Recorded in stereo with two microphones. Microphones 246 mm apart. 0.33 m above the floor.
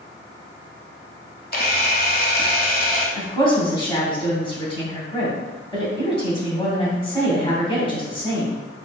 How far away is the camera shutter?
About 0.8 m.